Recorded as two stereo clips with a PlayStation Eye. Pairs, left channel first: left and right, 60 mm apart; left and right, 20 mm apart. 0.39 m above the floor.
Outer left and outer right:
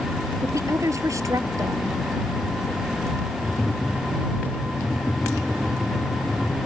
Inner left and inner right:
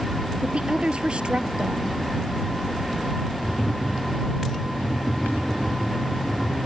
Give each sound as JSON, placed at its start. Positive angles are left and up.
{"t": 0.4, "sound": "a woman speaking", "side_deg": -55}
{"t": 3.4, "sound": "tapping", "side_deg": -10}